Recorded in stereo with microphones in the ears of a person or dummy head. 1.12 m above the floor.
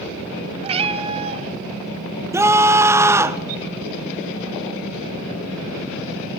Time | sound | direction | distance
0.6 | a cat meowing | 30° right (ahead or behind) | 1.7 m
2.3 | a scream | 10° right (ahead or behind) | 0.8 m